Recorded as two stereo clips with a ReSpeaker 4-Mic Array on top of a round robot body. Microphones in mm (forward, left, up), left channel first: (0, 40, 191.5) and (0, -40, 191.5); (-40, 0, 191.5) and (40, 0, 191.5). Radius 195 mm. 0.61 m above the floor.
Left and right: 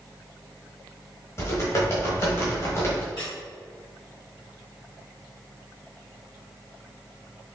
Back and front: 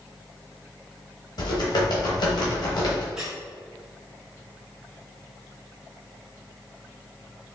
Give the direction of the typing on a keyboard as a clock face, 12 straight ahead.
7 o'clock.